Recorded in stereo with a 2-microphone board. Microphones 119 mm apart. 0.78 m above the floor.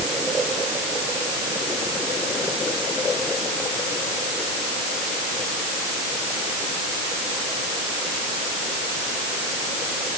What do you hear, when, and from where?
Only background noise.